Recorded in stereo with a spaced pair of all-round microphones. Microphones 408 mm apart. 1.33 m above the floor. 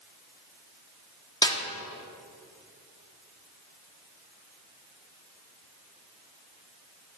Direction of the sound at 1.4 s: 10° left (ahead or behind).